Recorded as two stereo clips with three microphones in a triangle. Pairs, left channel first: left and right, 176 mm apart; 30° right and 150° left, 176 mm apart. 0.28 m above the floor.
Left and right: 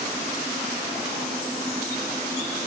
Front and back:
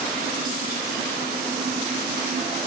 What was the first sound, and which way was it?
Only background noise.